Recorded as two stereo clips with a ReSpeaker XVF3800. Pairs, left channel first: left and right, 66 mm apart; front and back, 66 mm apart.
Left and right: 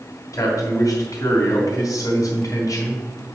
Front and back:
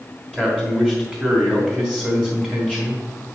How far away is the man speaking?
About 2.5 m.